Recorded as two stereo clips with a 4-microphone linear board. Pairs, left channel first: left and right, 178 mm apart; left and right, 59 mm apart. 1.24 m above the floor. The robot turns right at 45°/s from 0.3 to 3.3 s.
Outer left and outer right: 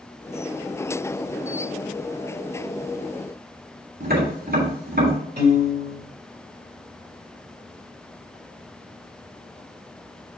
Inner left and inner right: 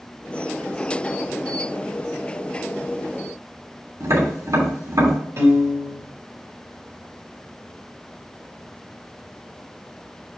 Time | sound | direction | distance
4.0 | tapping | 85° right | 3 m
5.4 | a piano | 55° right (ahead or behind) | 3 m